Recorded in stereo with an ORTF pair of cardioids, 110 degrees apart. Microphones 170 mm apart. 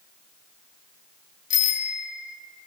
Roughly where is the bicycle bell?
Ahead left.